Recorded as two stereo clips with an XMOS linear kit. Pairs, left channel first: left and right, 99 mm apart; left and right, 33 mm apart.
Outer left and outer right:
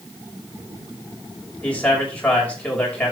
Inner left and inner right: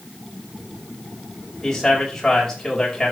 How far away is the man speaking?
About 5.5 m.